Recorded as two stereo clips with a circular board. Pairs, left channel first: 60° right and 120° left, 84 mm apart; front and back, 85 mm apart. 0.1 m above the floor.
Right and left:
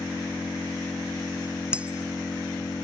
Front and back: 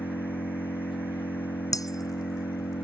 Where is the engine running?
5° left.